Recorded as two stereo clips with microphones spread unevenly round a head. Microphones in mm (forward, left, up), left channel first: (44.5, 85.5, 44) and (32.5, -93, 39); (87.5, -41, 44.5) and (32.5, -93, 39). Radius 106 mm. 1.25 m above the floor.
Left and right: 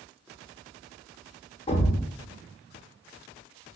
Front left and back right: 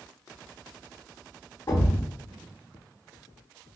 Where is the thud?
50° left, 0.7 m.